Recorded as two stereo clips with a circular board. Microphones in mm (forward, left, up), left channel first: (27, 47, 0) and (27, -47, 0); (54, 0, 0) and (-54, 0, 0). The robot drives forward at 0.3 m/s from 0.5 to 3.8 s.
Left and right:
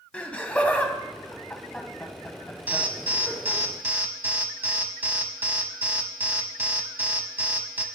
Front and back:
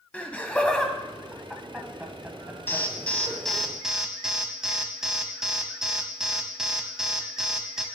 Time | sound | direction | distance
0.1 | laughter | 45° left | 1.0 m
2.7 | an alarm | 45° right | 0.8 m